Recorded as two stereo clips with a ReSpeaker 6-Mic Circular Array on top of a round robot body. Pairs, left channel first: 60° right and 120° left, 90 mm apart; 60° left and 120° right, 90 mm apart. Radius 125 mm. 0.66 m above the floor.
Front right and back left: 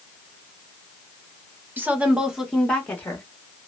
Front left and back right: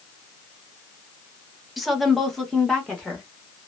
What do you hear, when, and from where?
1.8 s a woman speaking: 155° left, 1.0 m; by 3.2 s 15° right, 1.1 m